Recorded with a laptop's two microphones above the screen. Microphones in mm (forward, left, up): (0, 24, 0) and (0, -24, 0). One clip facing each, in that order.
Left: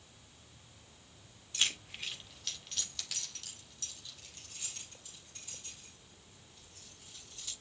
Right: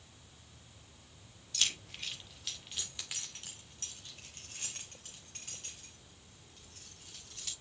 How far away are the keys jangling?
About 2 m.